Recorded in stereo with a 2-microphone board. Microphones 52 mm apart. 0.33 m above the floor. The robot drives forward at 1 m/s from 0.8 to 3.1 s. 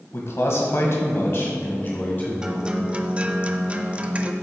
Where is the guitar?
15° right (ahead or behind), 0.8 m; by 4.3 s 25° right (ahead or behind), 0.5 m.